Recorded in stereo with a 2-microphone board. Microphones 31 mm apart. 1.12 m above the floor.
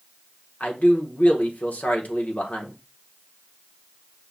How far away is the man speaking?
About 1.0 m.